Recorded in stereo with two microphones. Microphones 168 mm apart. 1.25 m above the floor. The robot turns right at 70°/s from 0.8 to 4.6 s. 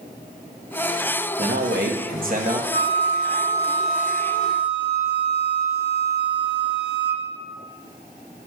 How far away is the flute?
About 1.9 m.